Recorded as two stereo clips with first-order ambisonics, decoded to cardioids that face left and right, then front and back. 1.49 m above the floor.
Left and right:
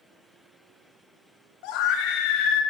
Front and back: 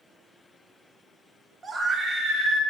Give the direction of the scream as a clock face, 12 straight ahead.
9 o'clock.